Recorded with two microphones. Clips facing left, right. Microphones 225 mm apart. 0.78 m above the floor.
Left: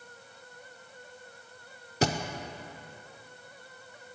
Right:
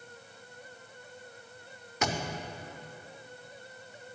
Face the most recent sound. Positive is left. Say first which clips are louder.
# left 4 dB
turn(degrees=35)  # may be behind; listen again after turning